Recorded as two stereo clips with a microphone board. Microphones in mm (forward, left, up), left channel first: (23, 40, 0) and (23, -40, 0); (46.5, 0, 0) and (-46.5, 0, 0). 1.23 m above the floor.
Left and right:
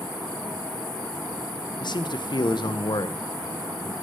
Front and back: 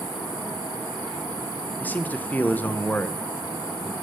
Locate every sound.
1.8 s a man speaking: 70° left, 0.8 m